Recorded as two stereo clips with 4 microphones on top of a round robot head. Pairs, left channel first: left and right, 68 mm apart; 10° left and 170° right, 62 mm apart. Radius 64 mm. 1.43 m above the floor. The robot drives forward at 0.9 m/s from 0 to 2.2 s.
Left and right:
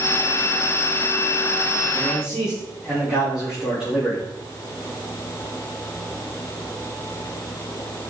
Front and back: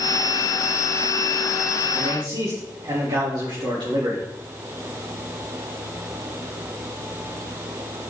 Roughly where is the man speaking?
Behind.